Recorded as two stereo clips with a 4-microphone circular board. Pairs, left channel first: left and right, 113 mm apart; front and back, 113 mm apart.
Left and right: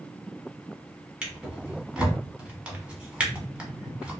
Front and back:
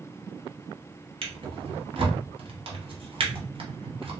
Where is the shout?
I don't hear a shout.